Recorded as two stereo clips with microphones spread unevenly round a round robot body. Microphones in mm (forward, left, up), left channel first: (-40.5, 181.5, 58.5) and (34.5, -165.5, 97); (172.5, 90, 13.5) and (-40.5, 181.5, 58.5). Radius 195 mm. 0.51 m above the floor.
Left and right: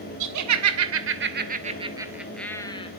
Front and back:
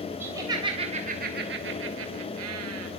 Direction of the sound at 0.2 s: 115° right.